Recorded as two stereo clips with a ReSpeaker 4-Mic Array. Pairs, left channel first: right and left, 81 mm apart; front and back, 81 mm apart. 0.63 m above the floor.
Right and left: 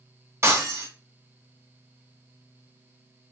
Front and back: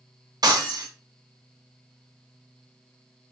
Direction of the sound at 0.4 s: 145° left.